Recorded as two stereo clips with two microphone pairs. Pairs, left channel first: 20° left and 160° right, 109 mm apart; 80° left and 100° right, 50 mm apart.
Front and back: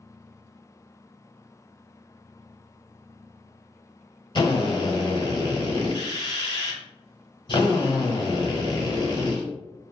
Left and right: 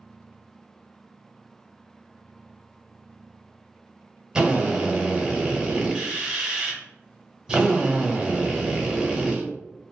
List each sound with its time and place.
4.3 s a drill: 25° right, 0.9 m